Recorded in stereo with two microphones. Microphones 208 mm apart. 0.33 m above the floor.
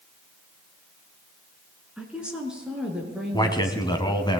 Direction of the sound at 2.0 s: 5° right (ahead or behind).